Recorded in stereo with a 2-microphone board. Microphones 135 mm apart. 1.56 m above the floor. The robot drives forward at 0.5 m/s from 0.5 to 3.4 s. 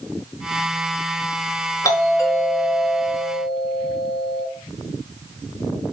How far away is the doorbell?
About 4.5 m.